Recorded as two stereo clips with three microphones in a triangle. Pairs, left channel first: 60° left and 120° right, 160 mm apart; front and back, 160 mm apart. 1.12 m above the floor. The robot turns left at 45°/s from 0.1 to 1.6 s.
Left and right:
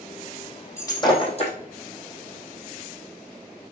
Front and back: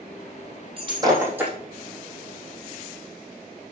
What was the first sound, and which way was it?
Breaking glass, 130° left.